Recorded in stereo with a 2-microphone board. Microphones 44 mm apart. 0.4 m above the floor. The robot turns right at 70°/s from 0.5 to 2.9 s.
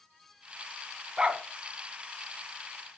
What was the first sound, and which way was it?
A dog barking, 15° right (ahead or behind).